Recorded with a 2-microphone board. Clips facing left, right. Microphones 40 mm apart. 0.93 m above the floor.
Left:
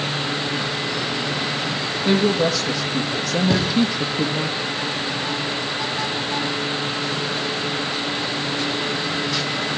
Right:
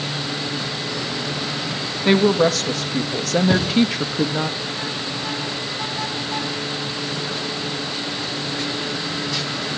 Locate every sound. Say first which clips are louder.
2.0 s a woman speaking: right 3 dB; 55° right (ahead or behind), 1.5 m
3.5 s a thud: even; 5° right (ahead or behind), 6 m